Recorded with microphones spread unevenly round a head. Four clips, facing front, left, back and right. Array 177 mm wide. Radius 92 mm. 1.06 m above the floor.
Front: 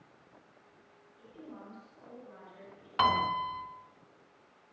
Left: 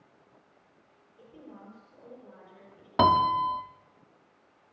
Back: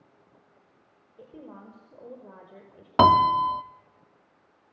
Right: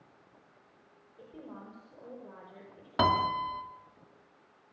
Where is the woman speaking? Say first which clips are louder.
Right 2 dB, back 4 dB; 165° right, 5.5 m.